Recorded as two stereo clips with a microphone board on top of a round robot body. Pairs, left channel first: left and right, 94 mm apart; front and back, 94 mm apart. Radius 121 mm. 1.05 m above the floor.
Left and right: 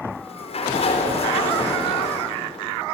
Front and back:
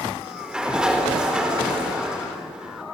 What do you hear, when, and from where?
0.1 s a sliding door: 100° left, 4 m